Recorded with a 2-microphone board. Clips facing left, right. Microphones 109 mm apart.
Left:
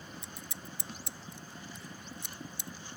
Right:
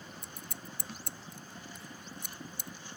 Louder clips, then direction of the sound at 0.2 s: Even; 55° right (ahead or behind).